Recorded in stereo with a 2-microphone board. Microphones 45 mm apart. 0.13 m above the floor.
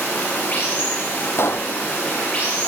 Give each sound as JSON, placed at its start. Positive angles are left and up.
{"t": 0.0, "sound": "running water", "side_deg": 35, "distance_m": 9.0}
{"t": 1.4, "sound": "a pop", "side_deg": 65, "distance_m": 1.4}